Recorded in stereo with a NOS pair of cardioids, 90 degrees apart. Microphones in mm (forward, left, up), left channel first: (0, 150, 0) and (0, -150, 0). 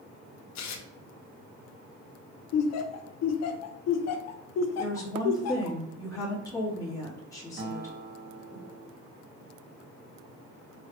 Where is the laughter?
60° left, 0.6 m.